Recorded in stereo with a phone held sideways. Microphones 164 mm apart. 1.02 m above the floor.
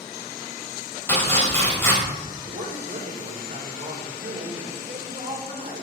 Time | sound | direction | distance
1.1 | chopping | 15° left (ahead or behind) | 4.5 m
2.4 | a woman speaking | 70° right (ahead or behind) | 3 m